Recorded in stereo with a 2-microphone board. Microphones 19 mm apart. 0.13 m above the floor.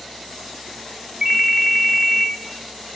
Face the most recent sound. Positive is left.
turn(degrees=-50)  # may be behind; listen again after turning